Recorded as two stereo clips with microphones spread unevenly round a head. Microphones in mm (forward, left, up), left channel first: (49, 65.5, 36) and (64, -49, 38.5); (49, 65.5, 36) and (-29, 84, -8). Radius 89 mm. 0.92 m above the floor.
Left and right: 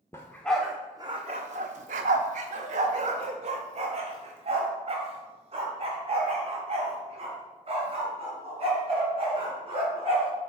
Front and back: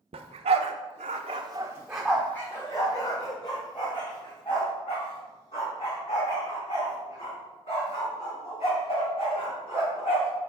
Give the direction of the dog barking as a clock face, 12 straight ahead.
6 o'clock.